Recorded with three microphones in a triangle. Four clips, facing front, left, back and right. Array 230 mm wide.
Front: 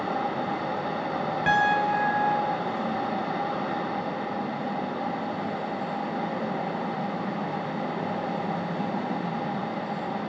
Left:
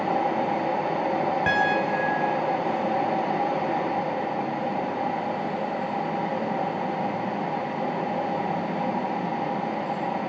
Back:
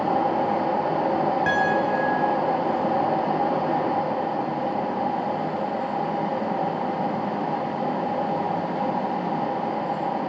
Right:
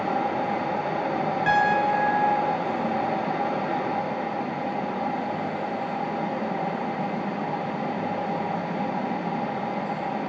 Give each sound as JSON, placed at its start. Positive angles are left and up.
{"t": 1.5, "sound": "a piano", "azimuth_deg": 80, "distance_m": 1.5}